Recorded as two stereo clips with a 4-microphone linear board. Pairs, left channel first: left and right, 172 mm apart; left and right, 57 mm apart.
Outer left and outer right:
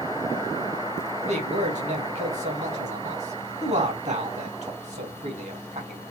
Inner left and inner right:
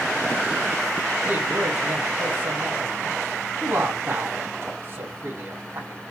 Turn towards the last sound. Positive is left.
turn(degrees=-40)  # may be behind; listen again after turning